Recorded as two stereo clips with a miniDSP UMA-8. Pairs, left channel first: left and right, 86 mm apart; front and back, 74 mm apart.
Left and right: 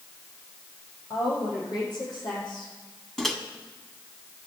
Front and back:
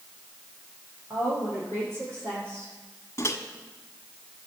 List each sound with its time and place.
1.1 s a woman speaking: 125° left, 8 m; by 2.7 s 120° left, 8.5 m
3.2 s a microwave: 5° left, 1.4 m